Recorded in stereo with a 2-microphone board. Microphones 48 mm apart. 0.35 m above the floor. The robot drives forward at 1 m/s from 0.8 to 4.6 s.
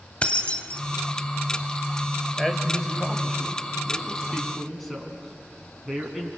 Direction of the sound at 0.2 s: 25° left (ahead or behind).